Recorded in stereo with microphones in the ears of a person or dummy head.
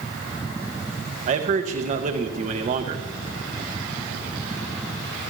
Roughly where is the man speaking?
Right.